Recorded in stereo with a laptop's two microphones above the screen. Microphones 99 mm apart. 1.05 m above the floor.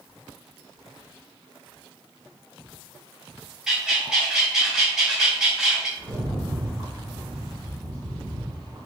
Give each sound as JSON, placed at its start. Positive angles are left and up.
{"t": 3.7, "sound": "a bird", "side_deg": -5, "distance_m": 0.6}
{"t": 6.0, "sound": "a rattle", "side_deg": -45, "distance_m": 1.5}